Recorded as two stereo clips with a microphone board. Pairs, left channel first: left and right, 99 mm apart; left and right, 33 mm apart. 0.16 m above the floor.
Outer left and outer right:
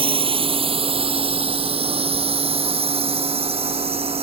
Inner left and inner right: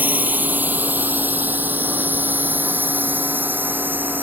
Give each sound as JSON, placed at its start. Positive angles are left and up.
{"t": 0.0, "sound": "a drone", "side_deg": -65}